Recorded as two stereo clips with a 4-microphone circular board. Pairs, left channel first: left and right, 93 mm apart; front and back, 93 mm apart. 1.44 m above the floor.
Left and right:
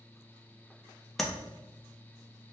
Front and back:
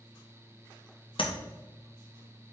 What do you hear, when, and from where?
1.2 s tapping: 5° left, 0.6 m